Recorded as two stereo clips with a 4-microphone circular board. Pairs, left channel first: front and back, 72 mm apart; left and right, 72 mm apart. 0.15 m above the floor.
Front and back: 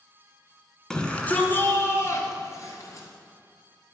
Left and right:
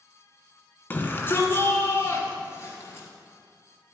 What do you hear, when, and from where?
0.9 s a shout: 70° left, 1.3 m; by 3.1 s 40° left, 3 m